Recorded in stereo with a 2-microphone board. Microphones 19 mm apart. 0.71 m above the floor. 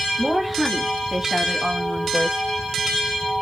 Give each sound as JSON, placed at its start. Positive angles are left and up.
{"t": 0.2, "sound": "a woman speaking", "side_deg": -10, "distance_m": 1.4}